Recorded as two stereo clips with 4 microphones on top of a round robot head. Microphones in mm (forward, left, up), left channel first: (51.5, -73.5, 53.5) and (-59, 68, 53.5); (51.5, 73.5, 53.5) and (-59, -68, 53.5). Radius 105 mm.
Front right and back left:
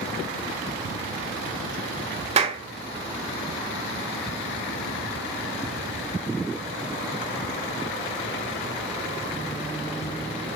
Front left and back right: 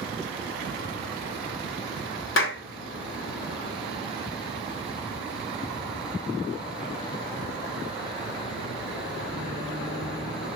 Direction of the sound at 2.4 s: 70° left.